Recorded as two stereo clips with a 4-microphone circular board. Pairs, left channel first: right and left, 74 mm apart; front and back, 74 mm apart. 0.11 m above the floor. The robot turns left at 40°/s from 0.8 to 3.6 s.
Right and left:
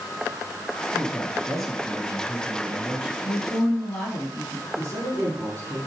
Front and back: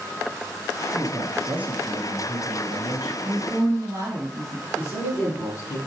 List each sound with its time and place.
0.9 s a man speaking: 145° right, 1.1 m; by 3.1 s 125° left, 1.1 m
3.2 s a woman speaking: 145° right, 1.5 m; by 4.7 s 155° right, 1.5 m
4.8 s a man speaking: 45° right, 2.5 m